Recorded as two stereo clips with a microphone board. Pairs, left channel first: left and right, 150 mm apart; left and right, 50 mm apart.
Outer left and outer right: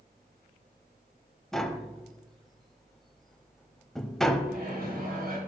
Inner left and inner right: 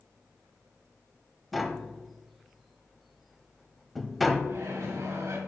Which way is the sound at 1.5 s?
Centre (ahead or behind).